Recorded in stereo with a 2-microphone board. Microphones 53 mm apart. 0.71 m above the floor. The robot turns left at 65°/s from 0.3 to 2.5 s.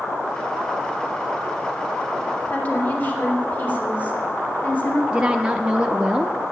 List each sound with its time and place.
2.5 s a woman speaking: 40° left (ahead or behind), 2.5 m; by 5.0 s 35° left (ahead or behind), 2.5 m
5.1 s a woman speaking: 15° right (ahead or behind), 0.6 m